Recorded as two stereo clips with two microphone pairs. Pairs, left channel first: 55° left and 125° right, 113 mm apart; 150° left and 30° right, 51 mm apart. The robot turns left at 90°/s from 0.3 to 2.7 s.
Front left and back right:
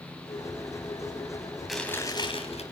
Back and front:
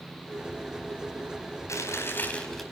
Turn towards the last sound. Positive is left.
turn(degrees=55)